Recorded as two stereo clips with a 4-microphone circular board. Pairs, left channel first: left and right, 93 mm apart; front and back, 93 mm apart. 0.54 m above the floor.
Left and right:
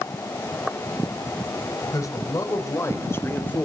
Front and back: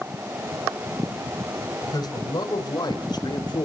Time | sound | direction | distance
1.8 | a man speaking | 40° left | 3.5 m